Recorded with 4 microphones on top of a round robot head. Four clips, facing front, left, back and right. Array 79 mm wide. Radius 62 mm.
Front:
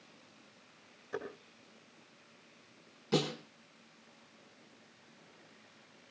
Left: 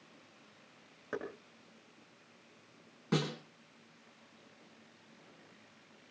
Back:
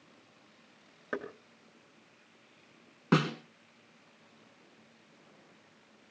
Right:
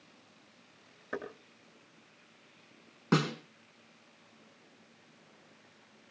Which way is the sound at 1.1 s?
165° left.